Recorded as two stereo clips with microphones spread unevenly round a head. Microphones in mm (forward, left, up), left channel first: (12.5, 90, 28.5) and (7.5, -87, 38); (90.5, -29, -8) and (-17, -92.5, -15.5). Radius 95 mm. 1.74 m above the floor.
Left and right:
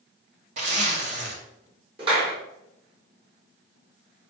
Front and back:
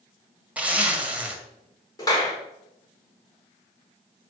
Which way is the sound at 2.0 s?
30° right.